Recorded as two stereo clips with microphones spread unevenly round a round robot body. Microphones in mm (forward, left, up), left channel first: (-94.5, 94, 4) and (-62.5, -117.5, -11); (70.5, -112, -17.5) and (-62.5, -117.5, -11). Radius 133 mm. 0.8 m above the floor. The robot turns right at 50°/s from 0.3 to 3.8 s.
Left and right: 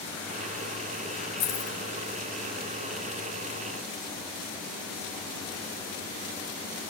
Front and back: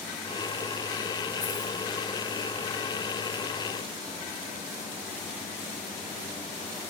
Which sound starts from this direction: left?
Keys jangling, at 1.4 s.